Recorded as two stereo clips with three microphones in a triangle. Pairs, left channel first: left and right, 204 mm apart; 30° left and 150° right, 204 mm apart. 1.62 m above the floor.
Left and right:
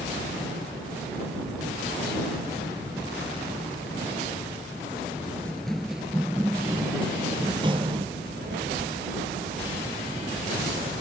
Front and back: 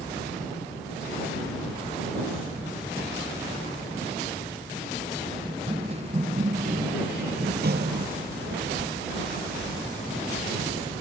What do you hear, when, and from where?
5.5 s running footsteps: 165° left; by 8.1 s 145° right
8.2 s a child speaking: 125° right